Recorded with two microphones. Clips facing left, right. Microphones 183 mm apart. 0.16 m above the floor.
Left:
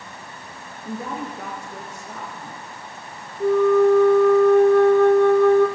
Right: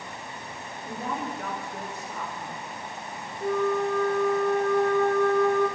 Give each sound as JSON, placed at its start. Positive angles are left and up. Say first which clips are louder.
{"t": 0.8, "sound": "a woman speaking", "louder": "left 3 dB", "side_deg": 80, "distance_m": 7.5}
{"t": 3.4, "sound": "a flute", "louder": "left 10 dB", "side_deg": 75, "distance_m": 2.5}